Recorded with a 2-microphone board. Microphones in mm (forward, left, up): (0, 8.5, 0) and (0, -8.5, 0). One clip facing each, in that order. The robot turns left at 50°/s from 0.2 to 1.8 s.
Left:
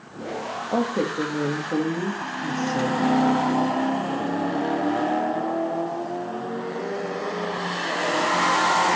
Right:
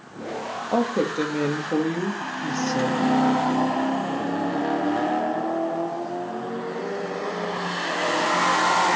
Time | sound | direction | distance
0.7 | a woman speaking | 40° right | 1.7 m